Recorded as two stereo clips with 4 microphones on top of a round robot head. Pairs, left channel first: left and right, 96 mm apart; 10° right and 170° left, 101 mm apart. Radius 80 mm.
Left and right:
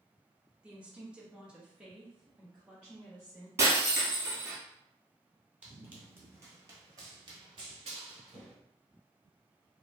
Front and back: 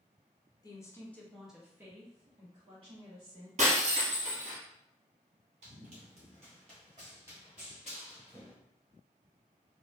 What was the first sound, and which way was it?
A woman speaking, 15° right.